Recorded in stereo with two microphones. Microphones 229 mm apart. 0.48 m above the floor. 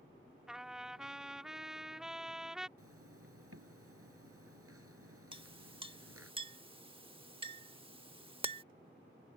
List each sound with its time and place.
0.5 s a trumpet: 5° right (ahead or behind)
2.8 s a zipper: 80° right
5.3 s a clink: 25° right (ahead or behind)